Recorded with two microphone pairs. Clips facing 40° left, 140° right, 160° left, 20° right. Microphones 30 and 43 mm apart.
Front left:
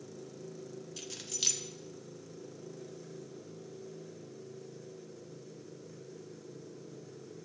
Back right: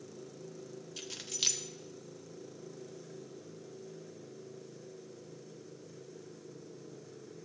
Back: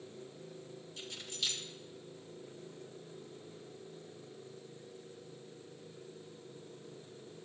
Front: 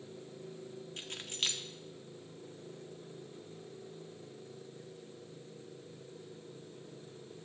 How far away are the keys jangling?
About 1.1 m.